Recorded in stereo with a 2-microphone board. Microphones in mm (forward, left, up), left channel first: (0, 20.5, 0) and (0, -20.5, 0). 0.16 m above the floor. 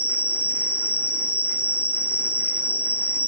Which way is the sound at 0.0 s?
80° left.